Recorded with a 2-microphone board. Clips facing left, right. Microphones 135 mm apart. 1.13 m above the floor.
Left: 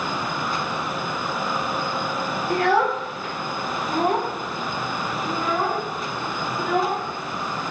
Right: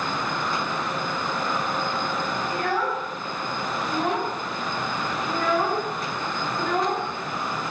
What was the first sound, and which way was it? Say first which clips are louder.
A child speaking: left 8 dB; 70° left (ahead or behind).